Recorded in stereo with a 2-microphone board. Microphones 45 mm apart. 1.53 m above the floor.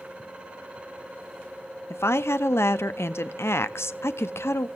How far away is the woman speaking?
About 0.6 m.